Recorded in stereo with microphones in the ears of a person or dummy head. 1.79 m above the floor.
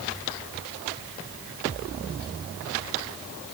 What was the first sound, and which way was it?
Only background noise.